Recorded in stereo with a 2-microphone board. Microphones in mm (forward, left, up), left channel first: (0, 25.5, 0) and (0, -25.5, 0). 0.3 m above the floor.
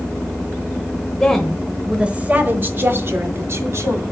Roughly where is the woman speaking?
Centre.